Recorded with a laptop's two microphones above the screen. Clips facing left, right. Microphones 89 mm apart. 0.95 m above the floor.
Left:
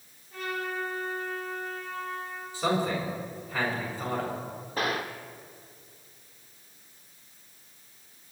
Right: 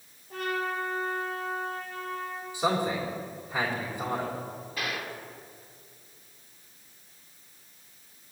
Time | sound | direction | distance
0.3 | a trumpet | 55° right (ahead or behind) | 3 m
2.5 | a man speaking | 10° right (ahead or behind) | 3.5 m
4.8 | a gunshot | 40° left (ahead or behind) | 0.9 m